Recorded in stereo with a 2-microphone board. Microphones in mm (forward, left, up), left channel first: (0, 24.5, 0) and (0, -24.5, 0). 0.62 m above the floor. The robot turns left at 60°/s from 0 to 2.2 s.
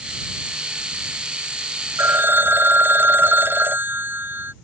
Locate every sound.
2.0 s a phone ringing: 60° right (ahead or behind); by 4.5 s 45° right (ahead or behind)